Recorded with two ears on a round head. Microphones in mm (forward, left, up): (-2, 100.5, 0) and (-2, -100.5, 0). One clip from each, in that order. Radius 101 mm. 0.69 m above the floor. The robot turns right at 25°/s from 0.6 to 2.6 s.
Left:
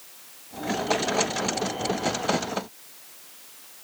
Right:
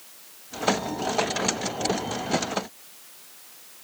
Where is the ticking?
No ticking in this recording.